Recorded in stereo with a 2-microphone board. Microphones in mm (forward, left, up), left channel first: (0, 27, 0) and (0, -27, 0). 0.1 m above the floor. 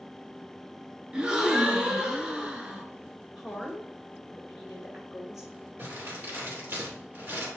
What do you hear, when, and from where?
1.1 s a gasp: 15° right (ahead or behind), 0.9 m
3.4 s a woman speaking: 5° right (ahead or behind), 1.7 m
5.8 s crumpling: 45° right (ahead or behind), 3 m